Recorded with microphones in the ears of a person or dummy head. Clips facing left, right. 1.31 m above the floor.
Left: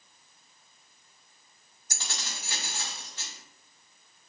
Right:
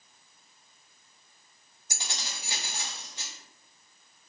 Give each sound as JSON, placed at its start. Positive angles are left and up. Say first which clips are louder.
{"t": 1.9, "sound": "keys jangling", "louder": "even", "side_deg": -10, "distance_m": 0.5}